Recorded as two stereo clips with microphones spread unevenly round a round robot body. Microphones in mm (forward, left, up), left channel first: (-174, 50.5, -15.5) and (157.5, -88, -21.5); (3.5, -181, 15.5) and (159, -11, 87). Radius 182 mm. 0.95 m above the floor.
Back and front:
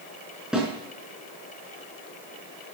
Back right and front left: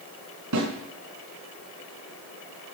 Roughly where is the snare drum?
Ahead left.